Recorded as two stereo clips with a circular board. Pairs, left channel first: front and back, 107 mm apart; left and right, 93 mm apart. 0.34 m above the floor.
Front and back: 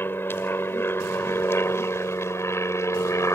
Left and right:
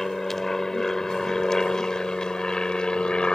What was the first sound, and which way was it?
An aircraft, 10° left.